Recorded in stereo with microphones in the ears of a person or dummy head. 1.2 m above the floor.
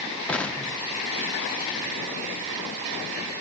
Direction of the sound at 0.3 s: 10° left (ahead or behind).